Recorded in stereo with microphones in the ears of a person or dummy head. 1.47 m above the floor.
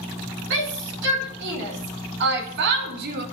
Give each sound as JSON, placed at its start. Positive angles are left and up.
{"t": 0.5, "sound": "a shout", "side_deg": -70, "distance_m": 5.5}